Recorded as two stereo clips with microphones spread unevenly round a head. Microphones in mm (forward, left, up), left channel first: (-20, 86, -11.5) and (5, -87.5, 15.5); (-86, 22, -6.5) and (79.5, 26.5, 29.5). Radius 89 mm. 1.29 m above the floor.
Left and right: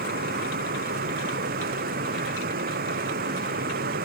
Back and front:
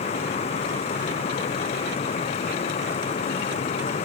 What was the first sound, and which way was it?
A fan, 120° right.